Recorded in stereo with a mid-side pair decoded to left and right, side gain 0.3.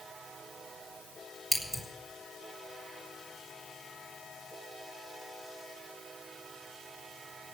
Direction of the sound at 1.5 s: 20° right.